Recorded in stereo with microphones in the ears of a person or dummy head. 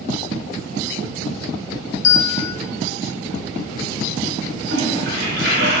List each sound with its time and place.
2.0 s a bell: 75° left (ahead or behind), 1.4 m
4.7 s a toilet flushing: 60° right (ahead or behind), 1.7 m